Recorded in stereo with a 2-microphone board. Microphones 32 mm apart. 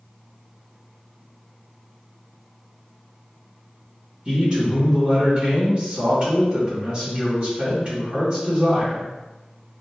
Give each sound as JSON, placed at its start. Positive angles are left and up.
{"t": 4.2, "sound": "a man speaking", "side_deg": -30, "distance_m": 1.8}